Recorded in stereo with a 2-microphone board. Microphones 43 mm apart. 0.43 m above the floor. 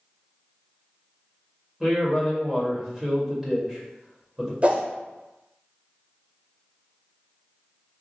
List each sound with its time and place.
1.8 s a man speaking: 15° right (ahead or behind), 1.8 m
4.6 s a whoosh: 35° right (ahead or behind), 0.7 m